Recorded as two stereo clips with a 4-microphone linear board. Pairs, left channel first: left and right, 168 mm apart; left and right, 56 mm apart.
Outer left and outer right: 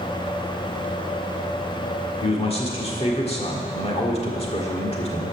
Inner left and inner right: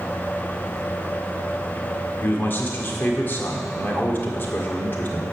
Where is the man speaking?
35° left (ahead or behind), 1.5 m.